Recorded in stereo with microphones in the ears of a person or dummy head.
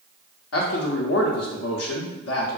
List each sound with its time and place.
0.5 s a man speaking: 80° left, 0.6 m